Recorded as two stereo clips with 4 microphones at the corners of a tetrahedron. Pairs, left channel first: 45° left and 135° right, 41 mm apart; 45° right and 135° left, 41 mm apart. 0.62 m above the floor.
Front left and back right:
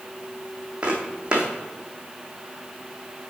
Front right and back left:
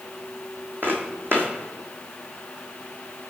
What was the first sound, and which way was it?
Footsteps, 165° left.